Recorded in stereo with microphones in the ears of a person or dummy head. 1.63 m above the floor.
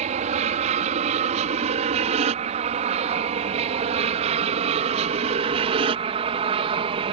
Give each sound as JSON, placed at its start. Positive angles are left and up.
{"t": 0.0, "sound": "an aircraft", "side_deg": -40}